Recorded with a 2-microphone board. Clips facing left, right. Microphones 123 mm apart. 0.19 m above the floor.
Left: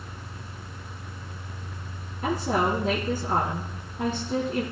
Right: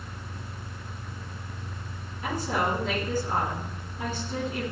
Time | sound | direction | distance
2.2 | a woman speaking | 50° left (ahead or behind) | 2.5 m